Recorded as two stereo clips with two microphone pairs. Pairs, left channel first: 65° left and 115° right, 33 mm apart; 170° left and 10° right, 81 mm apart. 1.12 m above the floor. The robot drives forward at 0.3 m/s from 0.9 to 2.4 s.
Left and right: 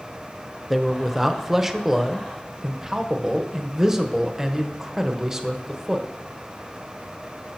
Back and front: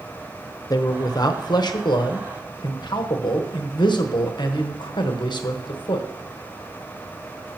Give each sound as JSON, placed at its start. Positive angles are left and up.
{"t": 0.7, "sound": "a man speaking", "azimuth_deg": 165, "distance_m": 0.7}